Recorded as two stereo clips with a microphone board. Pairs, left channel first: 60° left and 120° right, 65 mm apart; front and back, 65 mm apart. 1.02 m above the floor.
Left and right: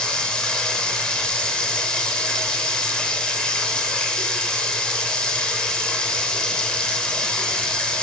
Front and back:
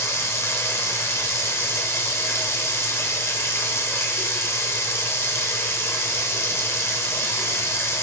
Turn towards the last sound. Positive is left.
turn(degrees=-10)